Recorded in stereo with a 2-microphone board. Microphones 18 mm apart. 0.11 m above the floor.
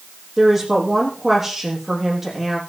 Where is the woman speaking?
15° right (ahead or behind), 4.5 m.